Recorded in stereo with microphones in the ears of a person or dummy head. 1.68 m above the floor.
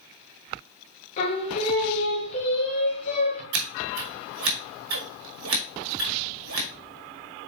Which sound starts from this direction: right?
Scissors, at 3.5 s.